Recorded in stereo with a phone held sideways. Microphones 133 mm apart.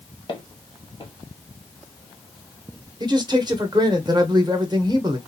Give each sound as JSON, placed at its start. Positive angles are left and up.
{"t": 0.3, "sound": "footsteps", "side_deg": 35, "distance_m": 1.6}
{"t": 3.0, "sound": "a man speaking", "side_deg": -35, "distance_m": 0.8}